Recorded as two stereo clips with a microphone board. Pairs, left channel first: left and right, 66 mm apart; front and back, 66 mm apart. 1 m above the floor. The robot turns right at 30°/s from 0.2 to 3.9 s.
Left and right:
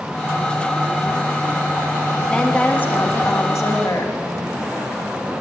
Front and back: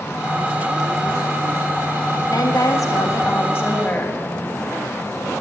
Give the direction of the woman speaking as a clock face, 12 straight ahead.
12 o'clock.